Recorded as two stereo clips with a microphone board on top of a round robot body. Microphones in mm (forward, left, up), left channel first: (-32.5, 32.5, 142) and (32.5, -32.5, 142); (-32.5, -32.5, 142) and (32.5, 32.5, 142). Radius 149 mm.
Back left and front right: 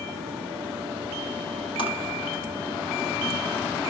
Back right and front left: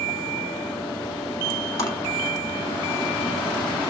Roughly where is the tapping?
Behind.